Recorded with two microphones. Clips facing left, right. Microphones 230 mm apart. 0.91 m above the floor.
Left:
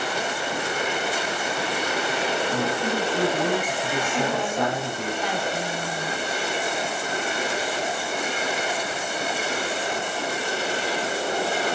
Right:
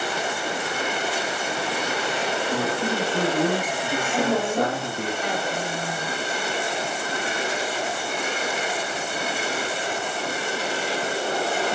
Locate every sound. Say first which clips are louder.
2.5 s a man speaking: even; 40° right (ahead or behind), 1.9 m
4.1 s a woman speaking: right 5 dB; 65° right (ahead or behind), 5 m